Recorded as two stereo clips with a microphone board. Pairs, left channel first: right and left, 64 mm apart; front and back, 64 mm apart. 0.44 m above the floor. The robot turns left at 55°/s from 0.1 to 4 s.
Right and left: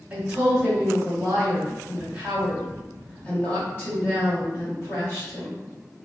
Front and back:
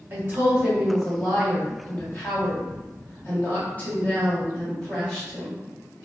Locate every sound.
0.1 s a woman speaking: 145° left, 1.6 m; by 5.6 s 70° right, 1.6 m